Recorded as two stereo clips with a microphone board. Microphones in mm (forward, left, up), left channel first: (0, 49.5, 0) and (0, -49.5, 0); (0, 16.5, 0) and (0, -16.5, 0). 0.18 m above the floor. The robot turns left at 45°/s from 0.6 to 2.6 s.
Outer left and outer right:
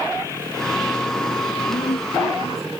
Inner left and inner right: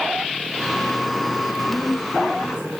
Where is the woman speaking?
120° left; by 2.7 s 75° left.